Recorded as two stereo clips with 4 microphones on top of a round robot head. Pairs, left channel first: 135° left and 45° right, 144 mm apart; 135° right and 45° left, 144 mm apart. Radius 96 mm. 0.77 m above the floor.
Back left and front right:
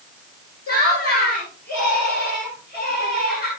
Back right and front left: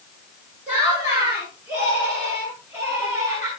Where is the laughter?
110° left, 10 m; by 3.5 s 115° left, 8.5 m.